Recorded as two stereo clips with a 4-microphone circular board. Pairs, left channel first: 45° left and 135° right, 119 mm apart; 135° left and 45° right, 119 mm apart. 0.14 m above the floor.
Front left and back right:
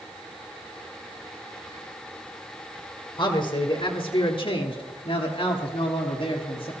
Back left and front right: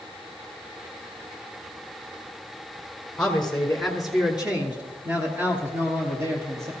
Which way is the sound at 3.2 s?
55° left.